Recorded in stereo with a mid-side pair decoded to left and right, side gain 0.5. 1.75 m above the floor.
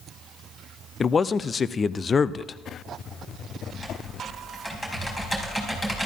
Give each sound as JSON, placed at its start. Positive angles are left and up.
{"t": 1.0, "sound": "a man speaking", "azimuth_deg": 35, "distance_m": 0.6}
{"t": 3.7, "sound": "typing on a keyboard", "azimuth_deg": 15, "distance_m": 5.0}